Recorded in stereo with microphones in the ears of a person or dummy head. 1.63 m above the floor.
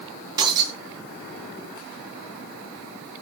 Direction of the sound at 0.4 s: 25° right (ahead or behind).